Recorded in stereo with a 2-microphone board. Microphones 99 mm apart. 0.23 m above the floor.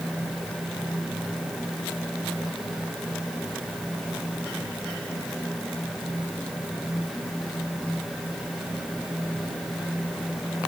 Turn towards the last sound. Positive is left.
No sound to turn to.